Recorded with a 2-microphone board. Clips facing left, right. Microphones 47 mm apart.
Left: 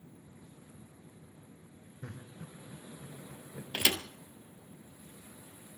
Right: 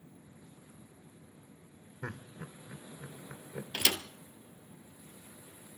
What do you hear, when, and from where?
2.0 s laughter: 80° right, 3 m
3.7 s a thud: 15° left (ahead or behind), 1.1 m